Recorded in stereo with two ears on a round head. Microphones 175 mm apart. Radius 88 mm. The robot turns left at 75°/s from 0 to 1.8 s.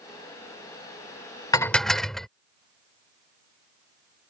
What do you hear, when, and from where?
1.5 s dishes clattering: 20° left (ahead or behind); by 2.3 s centre (ahead or behind)